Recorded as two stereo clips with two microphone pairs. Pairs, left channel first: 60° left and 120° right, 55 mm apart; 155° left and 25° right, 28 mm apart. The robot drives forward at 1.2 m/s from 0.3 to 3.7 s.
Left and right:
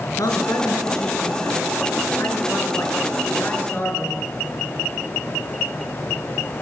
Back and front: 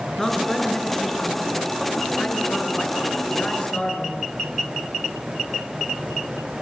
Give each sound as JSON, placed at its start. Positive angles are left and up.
{"t": 0.2, "sound": "a man speaking", "azimuth_deg": 70, "distance_m": 5.5}